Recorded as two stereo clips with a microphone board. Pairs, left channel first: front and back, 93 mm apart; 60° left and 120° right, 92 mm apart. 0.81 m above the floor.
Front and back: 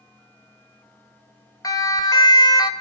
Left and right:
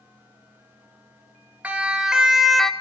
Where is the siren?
45° right, 2.5 m; by 2.7 s 25° right, 1.5 m.